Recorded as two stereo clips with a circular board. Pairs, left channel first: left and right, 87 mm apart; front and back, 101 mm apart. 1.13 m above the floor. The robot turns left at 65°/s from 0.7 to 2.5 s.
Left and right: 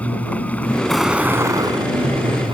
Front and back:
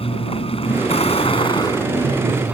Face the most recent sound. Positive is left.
turn(degrees=-100)